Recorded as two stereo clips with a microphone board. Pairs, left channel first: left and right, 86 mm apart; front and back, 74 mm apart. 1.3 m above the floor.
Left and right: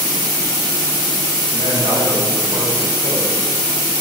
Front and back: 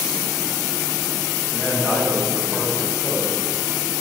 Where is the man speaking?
105° right, 5.5 m; by 3.4 s 85° right, 6.5 m.